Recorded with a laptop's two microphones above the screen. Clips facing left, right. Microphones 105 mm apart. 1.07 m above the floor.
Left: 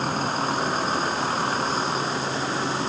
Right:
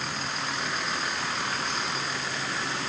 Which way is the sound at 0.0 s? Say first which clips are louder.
Left 8 dB; 40° left (ahead or behind).